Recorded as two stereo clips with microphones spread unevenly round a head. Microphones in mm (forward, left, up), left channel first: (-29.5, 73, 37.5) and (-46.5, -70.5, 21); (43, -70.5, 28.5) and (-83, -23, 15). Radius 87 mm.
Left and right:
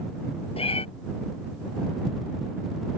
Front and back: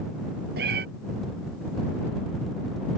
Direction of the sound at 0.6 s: 130° left.